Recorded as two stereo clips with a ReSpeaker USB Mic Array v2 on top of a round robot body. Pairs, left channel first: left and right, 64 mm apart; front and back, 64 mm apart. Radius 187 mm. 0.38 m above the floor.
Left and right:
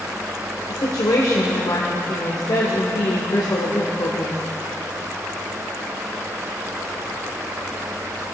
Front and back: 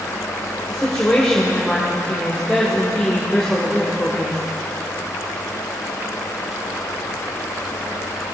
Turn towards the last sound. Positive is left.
turn(degrees=80)